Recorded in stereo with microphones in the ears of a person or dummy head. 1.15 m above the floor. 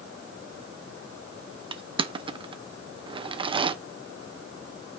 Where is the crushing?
30° right (ahead or behind), 0.6 m.